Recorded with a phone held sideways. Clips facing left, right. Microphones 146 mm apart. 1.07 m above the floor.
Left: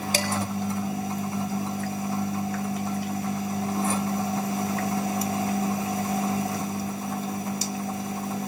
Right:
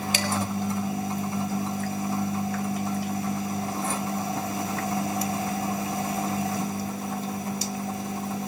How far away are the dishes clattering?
About 1.5 m.